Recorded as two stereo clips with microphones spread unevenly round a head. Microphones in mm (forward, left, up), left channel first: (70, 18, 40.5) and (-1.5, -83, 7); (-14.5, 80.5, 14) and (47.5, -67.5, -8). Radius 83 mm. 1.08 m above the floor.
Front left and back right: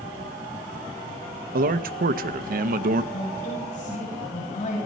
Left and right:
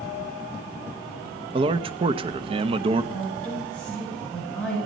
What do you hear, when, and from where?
1.5 s a man speaking: 130° right, 0.8 m
3.1 s a woman speaking: 30° left, 7.5 m